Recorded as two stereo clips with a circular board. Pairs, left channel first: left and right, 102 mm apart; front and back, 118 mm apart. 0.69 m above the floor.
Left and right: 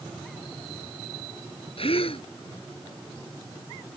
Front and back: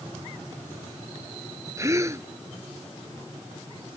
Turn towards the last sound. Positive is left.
turn(degrees=115)